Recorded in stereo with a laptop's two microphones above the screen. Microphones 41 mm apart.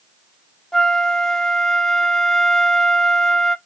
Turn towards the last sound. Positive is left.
turn(degrees=15)  # may be behind; listen again after turning